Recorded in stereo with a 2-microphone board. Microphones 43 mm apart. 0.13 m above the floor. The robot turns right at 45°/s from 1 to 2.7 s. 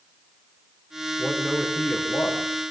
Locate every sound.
1.2 s a man speaking: 5° left, 7.5 m; by 2.5 s 65° left, 7.5 m